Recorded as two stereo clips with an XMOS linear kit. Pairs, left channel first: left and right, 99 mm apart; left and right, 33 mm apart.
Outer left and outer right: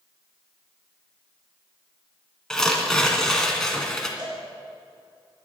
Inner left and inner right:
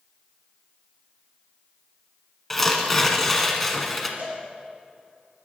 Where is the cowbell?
50° right (ahead or behind), 5.5 m.